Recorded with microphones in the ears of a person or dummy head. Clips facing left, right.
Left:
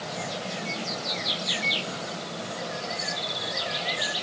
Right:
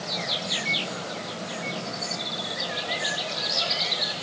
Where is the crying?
No crying in this recording.